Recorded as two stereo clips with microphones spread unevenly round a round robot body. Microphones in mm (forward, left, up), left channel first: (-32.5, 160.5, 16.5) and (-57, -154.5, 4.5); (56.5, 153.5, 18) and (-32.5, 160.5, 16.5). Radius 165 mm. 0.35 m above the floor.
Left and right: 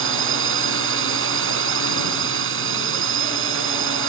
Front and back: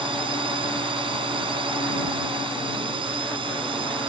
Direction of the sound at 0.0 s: 145° right.